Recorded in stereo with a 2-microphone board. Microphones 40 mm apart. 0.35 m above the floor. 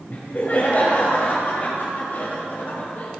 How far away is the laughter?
About 1.3 m.